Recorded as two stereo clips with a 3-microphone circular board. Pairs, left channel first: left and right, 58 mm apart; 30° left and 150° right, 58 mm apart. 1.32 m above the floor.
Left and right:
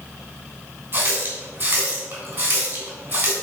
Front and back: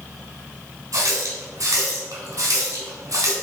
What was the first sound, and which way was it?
A running tap, 130° right.